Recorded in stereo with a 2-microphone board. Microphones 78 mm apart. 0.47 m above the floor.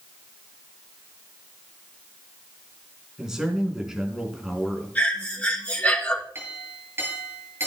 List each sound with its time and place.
3.2 s a man speaking: 5° right (ahead or behind), 4 m
5.0 s breathing: 20° left (ahead or behind), 5 m
6.3 s a clink: 30° right (ahead or behind), 5 m